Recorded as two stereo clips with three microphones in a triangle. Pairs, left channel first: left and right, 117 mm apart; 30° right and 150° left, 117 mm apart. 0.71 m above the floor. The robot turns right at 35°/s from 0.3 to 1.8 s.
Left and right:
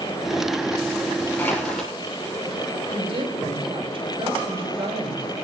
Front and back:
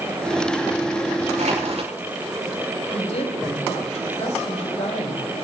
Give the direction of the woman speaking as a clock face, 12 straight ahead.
2 o'clock.